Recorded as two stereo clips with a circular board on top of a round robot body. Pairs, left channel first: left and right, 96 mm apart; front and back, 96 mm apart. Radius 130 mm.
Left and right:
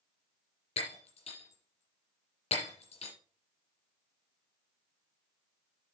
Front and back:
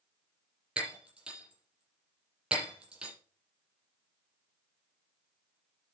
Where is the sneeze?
I don't hear a sneeze.